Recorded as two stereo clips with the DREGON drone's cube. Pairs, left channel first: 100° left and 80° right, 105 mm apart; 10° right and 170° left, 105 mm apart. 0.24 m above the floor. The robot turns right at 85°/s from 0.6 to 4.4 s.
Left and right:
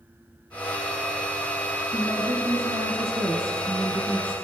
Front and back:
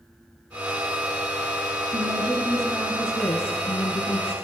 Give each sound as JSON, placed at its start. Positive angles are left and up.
{"t": 1.9, "sound": "a woman speaking", "azimuth_deg": -160, "distance_m": 3.0}